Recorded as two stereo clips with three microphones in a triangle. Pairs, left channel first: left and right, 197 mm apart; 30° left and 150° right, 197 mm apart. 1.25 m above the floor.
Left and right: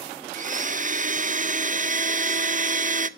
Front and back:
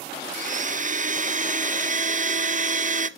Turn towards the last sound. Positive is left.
turn(degrees=-120)